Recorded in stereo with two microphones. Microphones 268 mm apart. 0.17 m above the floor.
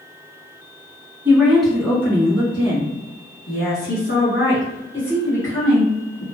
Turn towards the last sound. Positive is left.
turn(degrees=60)  # may be behind; listen again after turning